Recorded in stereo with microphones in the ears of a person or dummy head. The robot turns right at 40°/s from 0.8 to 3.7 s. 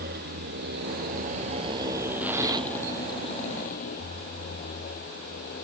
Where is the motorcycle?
55° right (ahead or behind); by 5.7 s 40° left (ahead or behind).